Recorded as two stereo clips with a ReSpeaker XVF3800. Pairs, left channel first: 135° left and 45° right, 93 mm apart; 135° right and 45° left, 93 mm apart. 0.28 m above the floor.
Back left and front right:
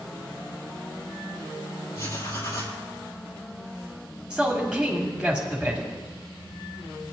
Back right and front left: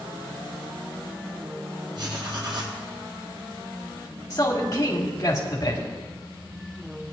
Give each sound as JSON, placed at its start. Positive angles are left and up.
{"t": 1.9, "sound": "writing", "azimuth_deg": 80, "distance_m": 3.0}
{"t": 4.3, "sound": "a man speaking", "azimuth_deg": -120, "distance_m": 1.9}